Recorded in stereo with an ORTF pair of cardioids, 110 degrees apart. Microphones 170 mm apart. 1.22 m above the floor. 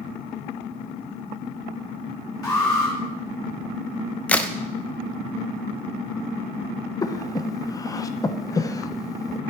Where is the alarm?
20° left, 3.5 m.